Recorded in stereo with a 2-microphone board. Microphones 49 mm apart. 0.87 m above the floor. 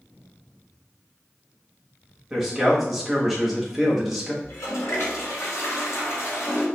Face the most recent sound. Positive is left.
turn(degrees=80)